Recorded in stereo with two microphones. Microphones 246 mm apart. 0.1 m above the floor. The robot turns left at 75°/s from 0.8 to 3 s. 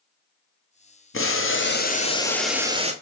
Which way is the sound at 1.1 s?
100° left.